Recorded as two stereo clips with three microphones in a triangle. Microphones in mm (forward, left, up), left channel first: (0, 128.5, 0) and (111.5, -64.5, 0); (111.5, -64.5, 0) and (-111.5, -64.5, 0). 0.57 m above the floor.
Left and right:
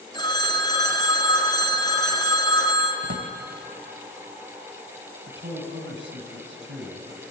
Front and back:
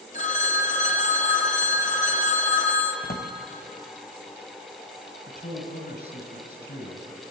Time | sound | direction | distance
0.1 | a phone ringing | 50° left | 1.9 m
3.0 | a drawer | 45° right | 1.0 m
5.3 | a man speaking | 35° right | 3.5 m